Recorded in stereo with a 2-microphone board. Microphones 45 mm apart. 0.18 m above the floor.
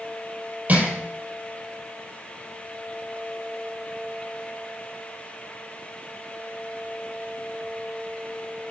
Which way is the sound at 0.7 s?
35° right (ahead or behind).